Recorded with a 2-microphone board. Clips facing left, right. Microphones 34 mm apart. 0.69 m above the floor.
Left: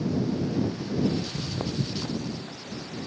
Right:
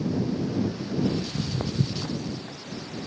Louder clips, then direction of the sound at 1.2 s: Right 2 dB; centre (ahead or behind).